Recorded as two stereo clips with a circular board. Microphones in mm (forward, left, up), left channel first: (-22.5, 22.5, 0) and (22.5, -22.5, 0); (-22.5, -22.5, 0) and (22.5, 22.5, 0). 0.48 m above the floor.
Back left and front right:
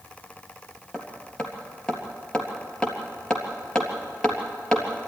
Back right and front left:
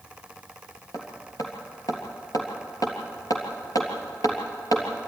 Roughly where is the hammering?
Behind right.